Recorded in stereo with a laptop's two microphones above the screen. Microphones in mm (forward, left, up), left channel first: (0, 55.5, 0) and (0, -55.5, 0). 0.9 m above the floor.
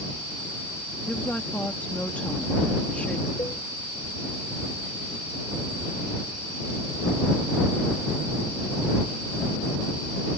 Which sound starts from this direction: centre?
A woman speaking, at 1.1 s.